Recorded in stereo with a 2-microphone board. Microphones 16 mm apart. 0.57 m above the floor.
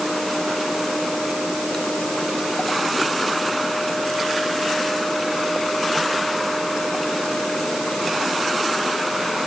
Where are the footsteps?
No footsteps in this recording.